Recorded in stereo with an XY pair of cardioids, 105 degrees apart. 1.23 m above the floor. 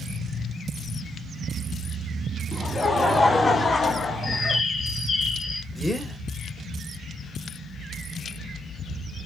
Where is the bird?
40° left, 1.9 m.